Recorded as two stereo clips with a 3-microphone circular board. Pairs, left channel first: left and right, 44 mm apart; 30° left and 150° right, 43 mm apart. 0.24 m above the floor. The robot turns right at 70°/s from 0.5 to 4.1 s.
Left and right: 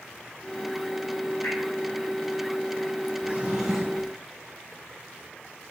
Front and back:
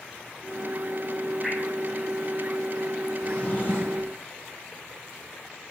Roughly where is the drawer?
Ahead right.